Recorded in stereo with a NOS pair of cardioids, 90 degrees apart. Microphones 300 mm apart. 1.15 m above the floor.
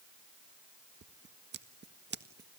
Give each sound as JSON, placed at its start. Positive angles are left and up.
{"t": 1.0, "sound": "scissors", "azimuth_deg": -35, "distance_m": 1.7}